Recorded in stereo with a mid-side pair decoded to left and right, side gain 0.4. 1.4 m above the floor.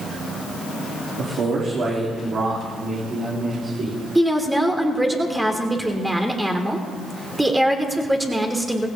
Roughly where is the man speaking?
Ahead right.